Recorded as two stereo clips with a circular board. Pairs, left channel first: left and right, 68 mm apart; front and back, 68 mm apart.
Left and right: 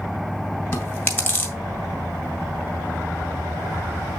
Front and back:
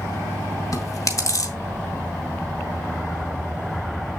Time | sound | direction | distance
0.7 | chewing | 40° left | 1.9 m